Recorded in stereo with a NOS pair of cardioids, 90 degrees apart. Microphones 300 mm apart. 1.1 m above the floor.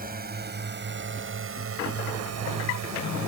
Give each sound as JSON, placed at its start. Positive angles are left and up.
{"t": 0.0, "sound": "a drone", "azimuth_deg": -30}